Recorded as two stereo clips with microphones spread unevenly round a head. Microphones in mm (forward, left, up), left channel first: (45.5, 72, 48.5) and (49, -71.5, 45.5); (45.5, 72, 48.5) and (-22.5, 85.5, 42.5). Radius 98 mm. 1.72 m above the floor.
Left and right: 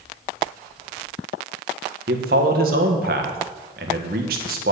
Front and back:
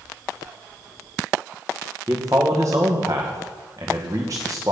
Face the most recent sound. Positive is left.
turn(degrees=-125)